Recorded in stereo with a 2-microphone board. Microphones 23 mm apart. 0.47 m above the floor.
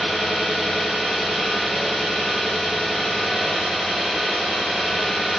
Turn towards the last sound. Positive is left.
turn(degrees=15)  # may be behind; listen again after turning